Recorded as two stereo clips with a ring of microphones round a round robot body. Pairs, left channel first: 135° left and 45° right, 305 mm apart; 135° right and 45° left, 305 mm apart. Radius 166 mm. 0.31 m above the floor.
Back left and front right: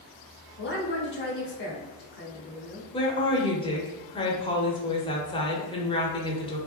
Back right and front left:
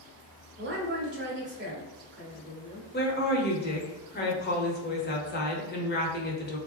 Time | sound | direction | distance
0.6 | a woman speaking | 90° left | 1.3 m
2.9 | a woman speaking | 165° right | 1.0 m